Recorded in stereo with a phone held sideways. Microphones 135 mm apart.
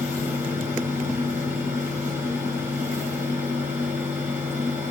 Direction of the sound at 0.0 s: 15° right (ahead or behind).